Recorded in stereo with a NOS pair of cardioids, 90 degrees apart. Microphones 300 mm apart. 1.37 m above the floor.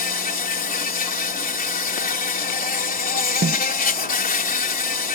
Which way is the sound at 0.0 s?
25° left.